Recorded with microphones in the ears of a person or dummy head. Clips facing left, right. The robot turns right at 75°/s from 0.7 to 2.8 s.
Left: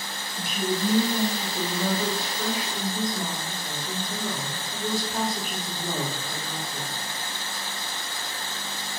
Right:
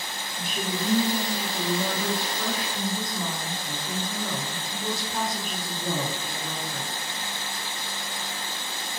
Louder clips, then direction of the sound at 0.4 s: Left 4 dB; 100° left.